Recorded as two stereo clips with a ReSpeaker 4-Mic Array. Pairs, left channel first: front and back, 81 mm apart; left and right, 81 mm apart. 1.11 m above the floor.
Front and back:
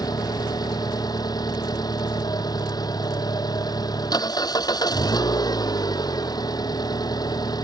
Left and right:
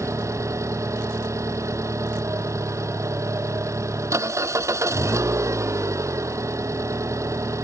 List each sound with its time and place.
0.0 s an engine running: 40° right